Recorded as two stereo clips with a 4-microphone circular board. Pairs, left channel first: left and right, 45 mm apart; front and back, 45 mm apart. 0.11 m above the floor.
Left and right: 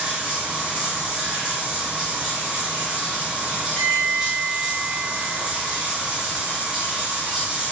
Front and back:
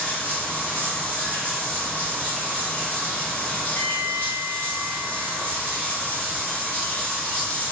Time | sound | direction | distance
0.0 | running water | 35° right | 1.4 m
3.8 | a bell | 30° left | 0.8 m